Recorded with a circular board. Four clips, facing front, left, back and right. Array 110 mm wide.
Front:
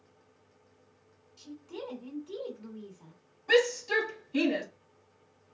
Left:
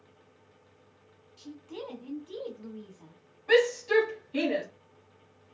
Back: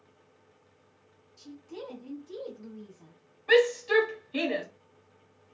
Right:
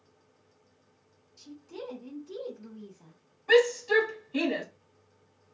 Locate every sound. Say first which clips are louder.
1.4 s a woman speaking: left 1 dB, even; 65° left, 1.5 m
3.5 s a shout: right 1 dB, back 3 dB; 170° left, 1.4 m